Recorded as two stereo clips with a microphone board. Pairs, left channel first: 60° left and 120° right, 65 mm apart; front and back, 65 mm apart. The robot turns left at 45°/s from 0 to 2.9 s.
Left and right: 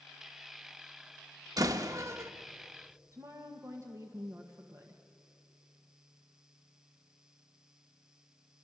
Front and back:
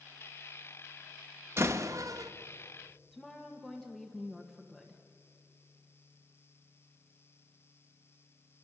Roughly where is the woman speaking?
Right.